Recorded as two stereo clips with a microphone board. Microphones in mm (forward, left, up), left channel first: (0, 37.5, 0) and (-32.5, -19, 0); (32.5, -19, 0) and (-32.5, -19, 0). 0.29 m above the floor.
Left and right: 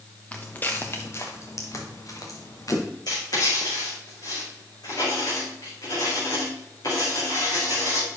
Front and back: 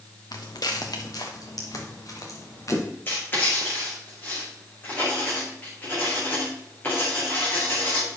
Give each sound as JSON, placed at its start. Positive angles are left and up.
{"t": 0.3, "sound": "footsteps", "azimuth_deg": -10, "distance_m": 1.5}
{"t": 3.1, "sound": "writing", "azimuth_deg": 55, "distance_m": 5.0}